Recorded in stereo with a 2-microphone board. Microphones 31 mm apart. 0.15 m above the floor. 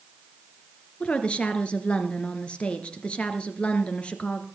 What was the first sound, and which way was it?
A woman speaking, 35° left (ahead or behind).